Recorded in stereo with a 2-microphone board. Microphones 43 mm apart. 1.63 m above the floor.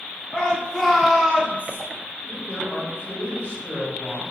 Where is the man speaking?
45° left (ahead or behind), 1.6 m.